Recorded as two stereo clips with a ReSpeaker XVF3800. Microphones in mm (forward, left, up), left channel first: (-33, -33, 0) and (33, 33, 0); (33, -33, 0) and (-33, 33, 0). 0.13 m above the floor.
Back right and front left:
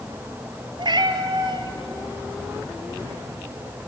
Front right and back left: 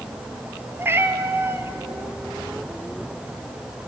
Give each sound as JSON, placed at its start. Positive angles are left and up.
{"t": 0.8, "sound": "a cat meowing", "azimuth_deg": 75, "distance_m": 0.9}